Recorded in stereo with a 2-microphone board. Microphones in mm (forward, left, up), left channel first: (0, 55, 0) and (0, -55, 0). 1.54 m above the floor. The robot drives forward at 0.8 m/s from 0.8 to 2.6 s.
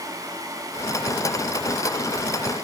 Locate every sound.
Only background noise.